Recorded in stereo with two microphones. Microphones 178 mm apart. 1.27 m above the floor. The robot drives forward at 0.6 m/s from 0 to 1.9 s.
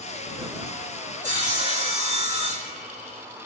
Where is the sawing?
45° right (ahead or behind), 3 m; by 3.2 s 40° right (ahead or behind), 3 m.